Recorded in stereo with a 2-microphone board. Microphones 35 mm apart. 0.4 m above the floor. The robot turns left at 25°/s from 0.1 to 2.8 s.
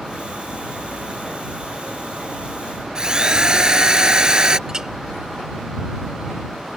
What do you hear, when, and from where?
3.0 s a drill: 20° right (ahead or behind)
4.7 s a clink: 20° right (ahead or behind)